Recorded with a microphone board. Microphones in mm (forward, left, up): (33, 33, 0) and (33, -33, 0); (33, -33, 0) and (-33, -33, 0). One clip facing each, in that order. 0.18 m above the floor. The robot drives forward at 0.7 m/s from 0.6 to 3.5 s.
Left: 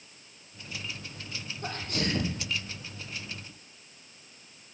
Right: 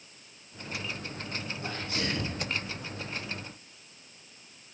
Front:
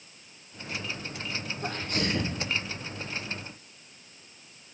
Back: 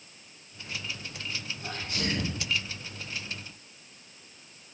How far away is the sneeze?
About 6 m.